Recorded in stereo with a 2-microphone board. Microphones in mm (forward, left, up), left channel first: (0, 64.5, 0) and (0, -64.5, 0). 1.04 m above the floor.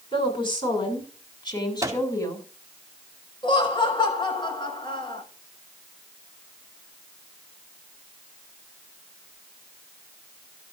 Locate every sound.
0.1 s a woman speaking: 40° left (ahead or behind), 8.5 m; by 2.5 s 25° left (ahead or behind), 6 m
1.8 s a microwave: 25° right (ahead or behind), 2.5 m
3.4 s laughter: 35° left (ahead or behind), 6.5 m